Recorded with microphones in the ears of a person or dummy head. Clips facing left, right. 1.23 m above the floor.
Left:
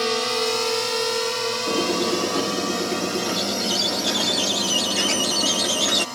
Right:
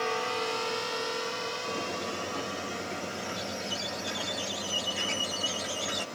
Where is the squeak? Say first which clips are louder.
Left 15 dB; 80° left.